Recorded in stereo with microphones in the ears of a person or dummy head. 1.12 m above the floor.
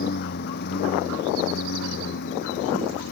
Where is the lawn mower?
55° left (ahead or behind); by 3.1 s 65° left (ahead or behind).